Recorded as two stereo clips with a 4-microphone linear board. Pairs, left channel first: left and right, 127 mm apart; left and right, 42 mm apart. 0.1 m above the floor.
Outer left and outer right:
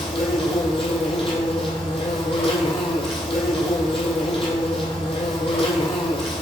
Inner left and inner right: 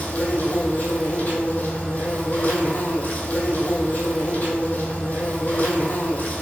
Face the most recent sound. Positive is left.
turn(degrees=45)  # may be behind; listen again after turning